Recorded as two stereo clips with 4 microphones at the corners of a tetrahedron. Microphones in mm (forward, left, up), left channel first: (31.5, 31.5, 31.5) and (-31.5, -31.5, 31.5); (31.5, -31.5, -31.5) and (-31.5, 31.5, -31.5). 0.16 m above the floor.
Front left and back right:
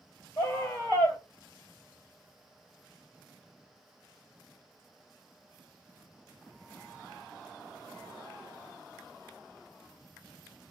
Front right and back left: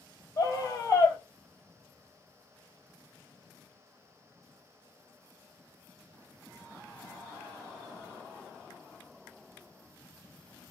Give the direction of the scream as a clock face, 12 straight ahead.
12 o'clock.